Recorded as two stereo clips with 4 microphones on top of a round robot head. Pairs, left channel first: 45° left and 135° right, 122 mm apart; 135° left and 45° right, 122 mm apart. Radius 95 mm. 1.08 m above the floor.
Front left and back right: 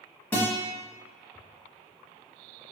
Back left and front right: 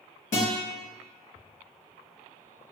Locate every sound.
0.3 s a guitar: 120° left, 1.0 m